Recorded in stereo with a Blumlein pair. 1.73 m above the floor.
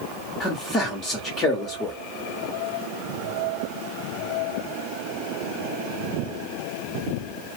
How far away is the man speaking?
About 1.0 m.